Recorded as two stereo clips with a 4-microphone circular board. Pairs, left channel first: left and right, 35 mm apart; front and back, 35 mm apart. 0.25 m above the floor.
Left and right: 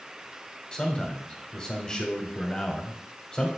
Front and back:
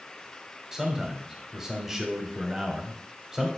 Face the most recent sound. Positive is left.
turn(degrees=125)